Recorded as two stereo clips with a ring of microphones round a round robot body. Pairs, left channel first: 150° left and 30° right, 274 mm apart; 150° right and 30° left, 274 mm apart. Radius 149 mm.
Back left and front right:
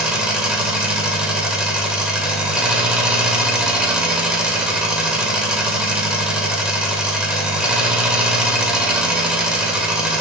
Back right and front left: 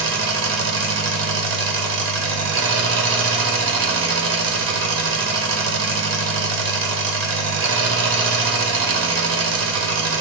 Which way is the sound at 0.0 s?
55° left.